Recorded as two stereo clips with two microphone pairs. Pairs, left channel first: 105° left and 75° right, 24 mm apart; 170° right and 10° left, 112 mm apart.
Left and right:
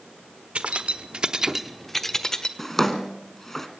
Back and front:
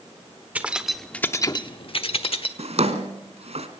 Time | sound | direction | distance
0.6 | keys jangling | 65° right | 1.3 m
2.6 | a drawer | 30° left | 1.7 m